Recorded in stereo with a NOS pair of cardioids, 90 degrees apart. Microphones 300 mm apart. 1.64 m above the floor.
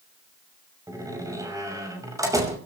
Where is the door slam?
10° right, 6 m.